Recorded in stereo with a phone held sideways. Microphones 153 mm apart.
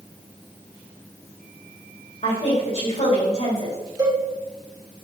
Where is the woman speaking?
45° left (ahead or behind), 3.5 m.